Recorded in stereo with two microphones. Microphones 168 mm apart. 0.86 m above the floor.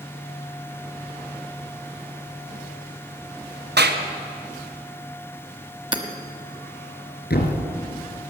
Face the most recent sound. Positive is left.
turn(degrees=70)  # may be behind; listen again after turning